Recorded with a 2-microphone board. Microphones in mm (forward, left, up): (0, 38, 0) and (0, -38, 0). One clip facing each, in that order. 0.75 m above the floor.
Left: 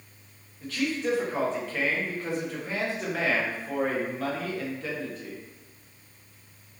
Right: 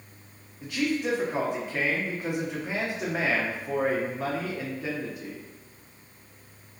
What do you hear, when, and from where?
0.6 s a man speaking: 15° right (ahead or behind), 0.8 m